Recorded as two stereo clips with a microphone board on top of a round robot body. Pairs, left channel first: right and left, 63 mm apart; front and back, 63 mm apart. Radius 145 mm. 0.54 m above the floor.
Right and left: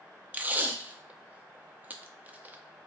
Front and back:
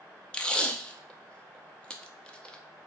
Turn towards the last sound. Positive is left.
turn(degrees=60)